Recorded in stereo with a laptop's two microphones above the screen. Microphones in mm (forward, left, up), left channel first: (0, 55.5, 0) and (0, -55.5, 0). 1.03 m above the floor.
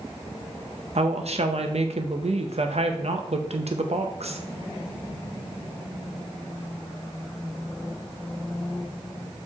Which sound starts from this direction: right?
A woman speaking, at 0.9 s.